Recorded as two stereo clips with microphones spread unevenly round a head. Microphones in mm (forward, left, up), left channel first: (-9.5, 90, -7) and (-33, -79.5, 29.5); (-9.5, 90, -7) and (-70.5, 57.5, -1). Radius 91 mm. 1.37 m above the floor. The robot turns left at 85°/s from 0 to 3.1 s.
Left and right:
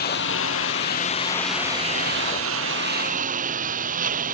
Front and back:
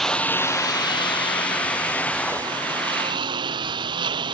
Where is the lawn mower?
115° left; by 4.3 s 140° right.